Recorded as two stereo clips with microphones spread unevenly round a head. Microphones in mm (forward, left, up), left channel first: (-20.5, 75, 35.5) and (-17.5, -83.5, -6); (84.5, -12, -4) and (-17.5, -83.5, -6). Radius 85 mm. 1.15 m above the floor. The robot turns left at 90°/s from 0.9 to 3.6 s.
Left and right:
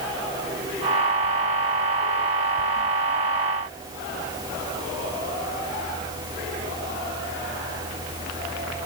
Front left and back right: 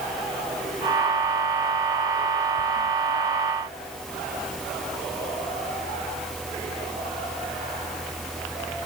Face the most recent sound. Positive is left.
No sound to turn to.